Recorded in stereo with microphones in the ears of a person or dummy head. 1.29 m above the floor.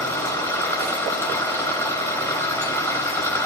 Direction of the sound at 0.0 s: 15° left (ahead or behind).